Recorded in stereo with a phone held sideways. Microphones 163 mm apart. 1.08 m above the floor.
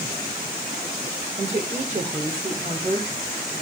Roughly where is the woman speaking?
Right.